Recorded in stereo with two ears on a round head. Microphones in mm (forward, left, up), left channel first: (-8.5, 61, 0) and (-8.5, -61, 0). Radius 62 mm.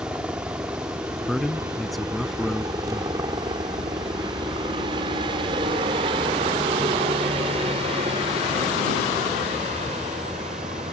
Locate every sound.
0.0 s a helicopter: 15° right (ahead or behind); by 10.9 s 50° right (ahead or behind)
1.3 s a man speaking: centre (ahead or behind)